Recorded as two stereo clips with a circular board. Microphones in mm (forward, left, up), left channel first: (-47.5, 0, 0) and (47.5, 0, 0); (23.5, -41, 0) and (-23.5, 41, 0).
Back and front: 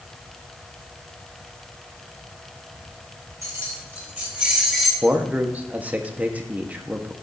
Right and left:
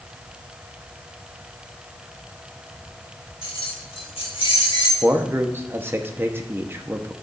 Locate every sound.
3.4 s keys jangling: 55° right, 2.5 m; by 4.9 s 90° right, 2.5 m
5.0 s a man speaking: 65° left, 0.9 m